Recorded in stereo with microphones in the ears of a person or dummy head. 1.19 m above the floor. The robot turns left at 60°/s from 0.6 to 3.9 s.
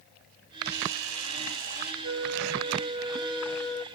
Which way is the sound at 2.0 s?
90° right.